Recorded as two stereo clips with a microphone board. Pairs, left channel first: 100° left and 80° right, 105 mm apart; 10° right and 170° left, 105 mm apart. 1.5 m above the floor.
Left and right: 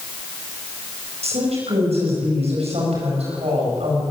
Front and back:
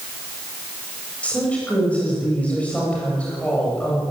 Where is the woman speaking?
90° right, 9 m.